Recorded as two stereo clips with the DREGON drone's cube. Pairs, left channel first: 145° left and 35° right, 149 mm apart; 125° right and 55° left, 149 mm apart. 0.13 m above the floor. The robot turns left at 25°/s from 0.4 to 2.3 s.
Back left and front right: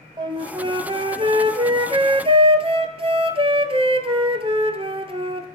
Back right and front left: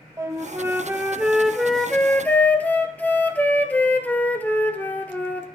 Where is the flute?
5° right, 0.8 m; by 5.5 s 50° right, 0.8 m.